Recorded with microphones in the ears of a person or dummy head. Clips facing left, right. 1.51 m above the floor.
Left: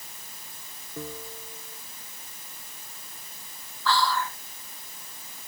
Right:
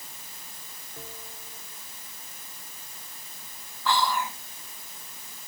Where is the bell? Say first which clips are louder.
Left 8 dB; 85° left.